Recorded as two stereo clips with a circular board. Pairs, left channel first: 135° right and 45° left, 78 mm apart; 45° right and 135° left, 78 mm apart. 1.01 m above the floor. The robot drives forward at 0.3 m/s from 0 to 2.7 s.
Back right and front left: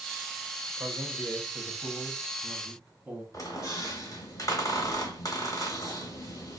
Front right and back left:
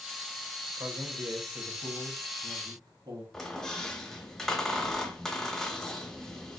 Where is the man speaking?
95° left, 1.1 m; by 3.2 s 125° left, 1.3 m.